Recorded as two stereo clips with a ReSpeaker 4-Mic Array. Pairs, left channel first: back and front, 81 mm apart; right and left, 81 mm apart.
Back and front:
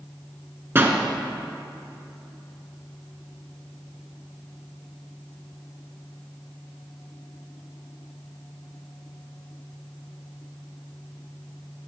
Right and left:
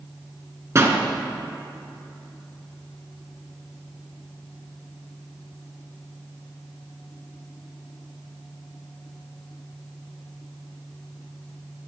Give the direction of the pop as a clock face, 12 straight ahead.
10 o'clock.